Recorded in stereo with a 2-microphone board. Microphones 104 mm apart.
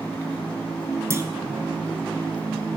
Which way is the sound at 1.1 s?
30° right (ahead or behind).